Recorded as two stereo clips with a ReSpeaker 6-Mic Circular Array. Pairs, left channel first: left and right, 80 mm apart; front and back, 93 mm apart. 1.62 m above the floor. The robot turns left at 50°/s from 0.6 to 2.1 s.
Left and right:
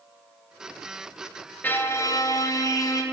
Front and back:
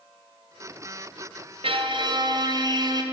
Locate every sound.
1.6 s a violin: 160° left, 0.5 m; by 3.0 s 135° left, 0.5 m